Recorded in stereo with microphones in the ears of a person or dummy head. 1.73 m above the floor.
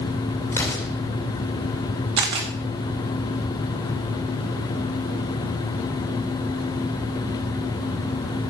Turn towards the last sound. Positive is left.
turn(degrees=-25)  # may be behind; listen again after turning